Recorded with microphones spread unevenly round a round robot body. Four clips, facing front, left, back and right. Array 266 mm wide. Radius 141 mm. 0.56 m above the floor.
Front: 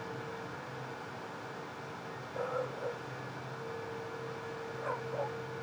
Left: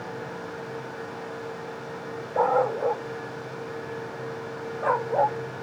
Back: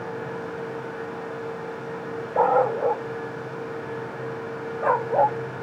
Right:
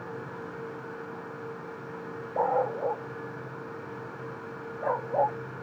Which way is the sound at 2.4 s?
150° left.